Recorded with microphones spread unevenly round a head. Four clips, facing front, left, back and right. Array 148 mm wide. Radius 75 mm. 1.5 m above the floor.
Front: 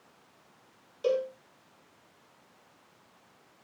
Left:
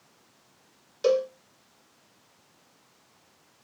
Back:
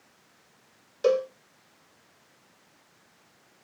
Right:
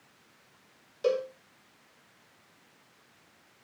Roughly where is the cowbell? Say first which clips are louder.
Left 5 dB, back 5 dB; behind left.